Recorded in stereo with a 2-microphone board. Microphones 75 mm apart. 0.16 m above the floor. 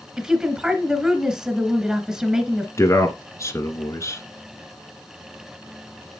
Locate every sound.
0.2 s a woman speaking: 10° right (ahead or behind), 1.5 m
2.8 s a man speaking: 40° left (ahead or behind), 1.7 m